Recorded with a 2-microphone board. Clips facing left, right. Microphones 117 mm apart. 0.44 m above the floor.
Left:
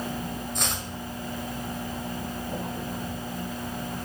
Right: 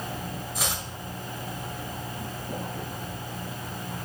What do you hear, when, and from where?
0.6 s chopping: 5° right (ahead or behind), 1.2 m